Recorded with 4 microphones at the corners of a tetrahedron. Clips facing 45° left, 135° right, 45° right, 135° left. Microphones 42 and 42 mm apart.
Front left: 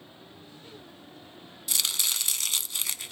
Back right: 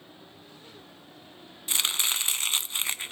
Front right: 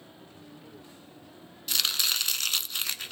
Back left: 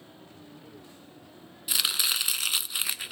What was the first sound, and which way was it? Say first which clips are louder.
Chopping: back right 2 dB, even; 155° right.